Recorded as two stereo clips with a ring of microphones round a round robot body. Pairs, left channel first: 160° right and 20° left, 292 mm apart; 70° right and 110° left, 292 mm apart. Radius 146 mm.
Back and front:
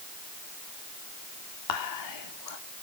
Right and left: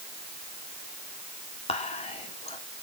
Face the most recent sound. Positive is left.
turn(degrees=-140)